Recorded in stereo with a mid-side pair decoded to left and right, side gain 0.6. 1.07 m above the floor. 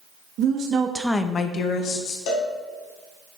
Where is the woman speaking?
60° right, 1.2 m; by 2.2 s 65° left, 2.0 m.